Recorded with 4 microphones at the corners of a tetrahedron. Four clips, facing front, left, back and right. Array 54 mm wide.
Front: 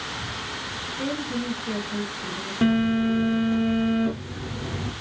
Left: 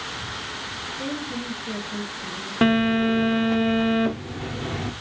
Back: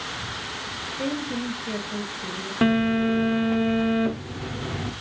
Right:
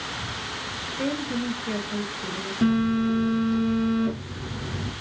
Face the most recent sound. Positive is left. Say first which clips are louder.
# left 3 dB, even
turn(degrees=110)